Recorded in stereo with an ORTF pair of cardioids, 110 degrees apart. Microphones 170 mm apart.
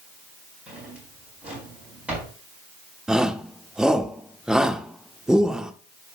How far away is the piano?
No piano in this recording.